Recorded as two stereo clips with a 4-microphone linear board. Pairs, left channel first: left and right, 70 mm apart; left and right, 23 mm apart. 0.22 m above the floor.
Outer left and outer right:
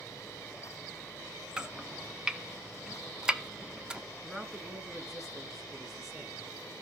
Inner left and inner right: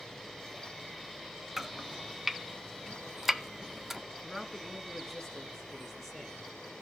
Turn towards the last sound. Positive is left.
turn(degrees=-5)  # may be behind; listen again after turning